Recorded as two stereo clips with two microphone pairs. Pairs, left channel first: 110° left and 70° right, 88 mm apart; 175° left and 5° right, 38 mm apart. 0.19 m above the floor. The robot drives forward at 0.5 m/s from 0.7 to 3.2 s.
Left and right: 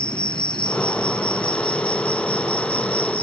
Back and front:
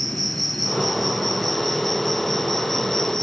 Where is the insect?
80° left; by 3.2 s 90° left.